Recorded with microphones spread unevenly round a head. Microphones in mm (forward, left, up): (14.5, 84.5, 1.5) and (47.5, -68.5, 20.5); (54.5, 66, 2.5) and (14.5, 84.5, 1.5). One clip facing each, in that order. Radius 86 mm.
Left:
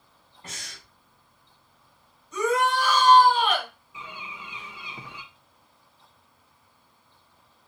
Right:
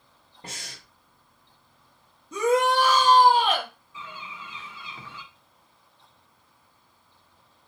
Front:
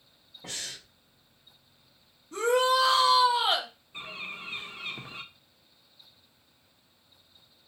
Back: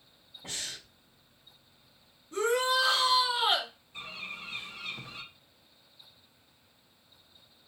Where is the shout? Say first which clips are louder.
Right 3 dB, front 3 dB; 95° right, 2.0 m.